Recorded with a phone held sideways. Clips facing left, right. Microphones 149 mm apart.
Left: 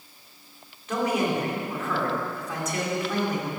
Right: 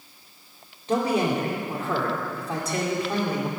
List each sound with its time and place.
0.9 s a man speaking: 35° right (ahead or behind), 2.5 m